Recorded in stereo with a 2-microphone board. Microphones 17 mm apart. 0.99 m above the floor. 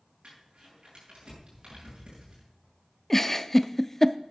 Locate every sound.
0.2 s crumpling: 70° right (ahead or behind), 7 m
3.1 s a giggle: 20° left (ahead or behind), 0.5 m